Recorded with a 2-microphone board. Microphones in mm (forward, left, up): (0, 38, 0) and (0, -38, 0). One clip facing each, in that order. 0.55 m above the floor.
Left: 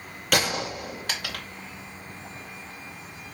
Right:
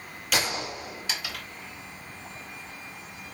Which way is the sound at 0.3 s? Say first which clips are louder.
Left 4 dB; 55° left (ahead or behind).